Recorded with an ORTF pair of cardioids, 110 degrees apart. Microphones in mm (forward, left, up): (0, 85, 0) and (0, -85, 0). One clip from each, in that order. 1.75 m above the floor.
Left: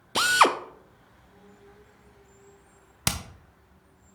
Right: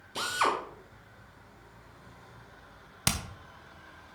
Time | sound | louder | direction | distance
0.1 | a drill | left 9 dB | 55° left | 0.8 m
3.1 | hammering | left 1 dB | 10° left | 1.2 m